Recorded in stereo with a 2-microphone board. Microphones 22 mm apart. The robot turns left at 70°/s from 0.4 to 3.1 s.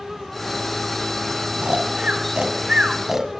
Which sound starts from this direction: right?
Snoring, at 1.6 s.